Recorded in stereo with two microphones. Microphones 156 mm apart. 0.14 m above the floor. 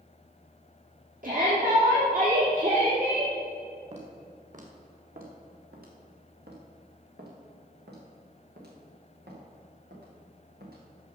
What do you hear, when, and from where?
1.2 s a shout: 55° right (ahead or behind), 3.5 m; by 3.3 s 50° right (ahead or behind), 4.5 m
3.9 s footsteps: 45° right (ahead or behind), 4 m; by 10.8 s 70° right (ahead or behind), 6.5 m